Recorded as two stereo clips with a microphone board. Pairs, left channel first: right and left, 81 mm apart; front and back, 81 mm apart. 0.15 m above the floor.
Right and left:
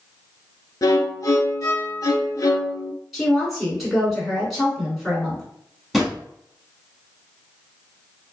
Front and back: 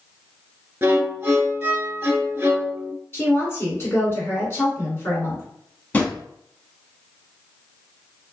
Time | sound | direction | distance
0.8 | a violin | 120° right | 0.6 m
3.1 | a woman speaking | straight ahead | 1.6 m
5.9 | a drawer | straight ahead | 0.7 m